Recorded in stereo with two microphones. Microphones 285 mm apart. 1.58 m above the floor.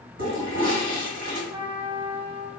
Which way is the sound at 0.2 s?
70° right (ahead or behind).